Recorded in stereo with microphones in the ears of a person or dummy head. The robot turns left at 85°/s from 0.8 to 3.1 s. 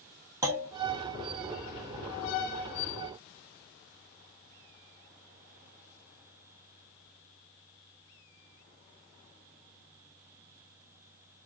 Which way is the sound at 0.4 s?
20° right (ahead or behind).